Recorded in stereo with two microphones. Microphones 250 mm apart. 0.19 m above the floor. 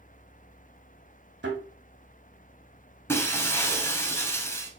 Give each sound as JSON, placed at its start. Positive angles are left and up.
{"t": 1.4, "sound": "a thud", "side_deg": -60, "distance_m": 2.0}
{"t": 3.1, "sound": "breaking glass", "side_deg": 10, "distance_m": 0.6}